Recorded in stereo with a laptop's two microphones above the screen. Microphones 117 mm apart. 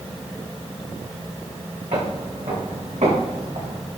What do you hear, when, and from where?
1.9 s footsteps: 80° right, 6 m; by 3.8 s 75° right (ahead or behind), 5.5 m